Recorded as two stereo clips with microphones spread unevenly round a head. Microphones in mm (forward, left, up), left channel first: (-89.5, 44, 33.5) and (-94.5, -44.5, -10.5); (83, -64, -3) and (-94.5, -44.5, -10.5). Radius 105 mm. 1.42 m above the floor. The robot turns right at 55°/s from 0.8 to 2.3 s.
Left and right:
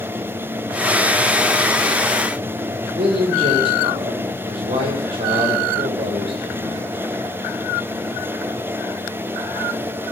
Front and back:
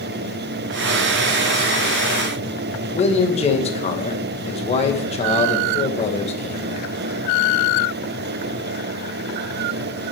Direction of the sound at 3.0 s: 60° right.